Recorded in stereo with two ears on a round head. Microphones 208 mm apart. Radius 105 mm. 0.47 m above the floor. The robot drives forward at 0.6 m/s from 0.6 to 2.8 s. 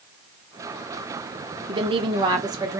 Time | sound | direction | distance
1.7 | a woman speaking | 25° right (ahead or behind) | 0.9 m